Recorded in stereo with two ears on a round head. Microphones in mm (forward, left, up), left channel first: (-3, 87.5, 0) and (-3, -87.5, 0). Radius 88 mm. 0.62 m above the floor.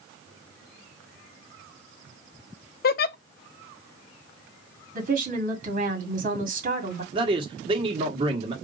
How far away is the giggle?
About 0.5 m.